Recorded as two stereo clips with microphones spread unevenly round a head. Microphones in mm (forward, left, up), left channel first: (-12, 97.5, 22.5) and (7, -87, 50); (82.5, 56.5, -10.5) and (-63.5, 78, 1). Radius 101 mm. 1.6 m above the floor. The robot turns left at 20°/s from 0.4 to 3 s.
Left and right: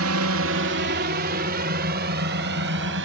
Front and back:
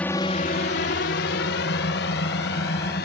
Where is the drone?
95° right; by 3.1 s 55° right.